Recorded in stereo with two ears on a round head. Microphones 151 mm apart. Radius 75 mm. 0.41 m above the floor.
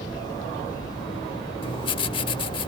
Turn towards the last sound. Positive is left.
turn(degrees=30)  # may be behind; listen again after turning